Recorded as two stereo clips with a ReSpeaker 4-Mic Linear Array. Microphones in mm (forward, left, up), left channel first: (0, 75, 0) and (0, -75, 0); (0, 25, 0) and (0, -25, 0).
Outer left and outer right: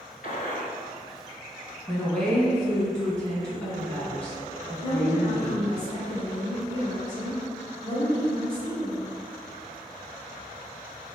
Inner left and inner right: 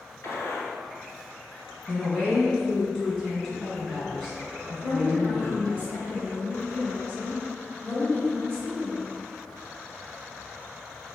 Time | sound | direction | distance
0.2 | a gunshot | 60° left (ahead or behind) | 0.6 m
1.9 | a woman speaking | 5° left (ahead or behind) | 1.3 m
4.8 | a woman speaking | 30° left (ahead or behind) | 1.4 m